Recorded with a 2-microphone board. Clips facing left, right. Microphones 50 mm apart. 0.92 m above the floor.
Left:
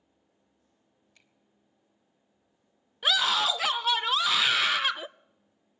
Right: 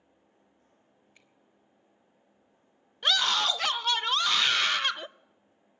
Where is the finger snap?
20° right (ahead or behind), 3 m.